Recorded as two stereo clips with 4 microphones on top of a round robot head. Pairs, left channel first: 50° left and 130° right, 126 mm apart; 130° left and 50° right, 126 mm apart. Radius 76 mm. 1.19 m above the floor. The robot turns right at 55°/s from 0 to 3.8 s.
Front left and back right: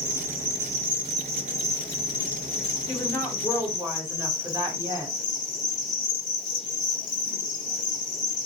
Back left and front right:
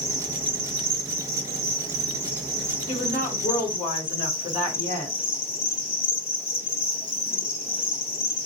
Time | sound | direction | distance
0.0 | an insect | 130° right | 0.9 m
2.9 | a woman speaking | 115° left | 1.2 m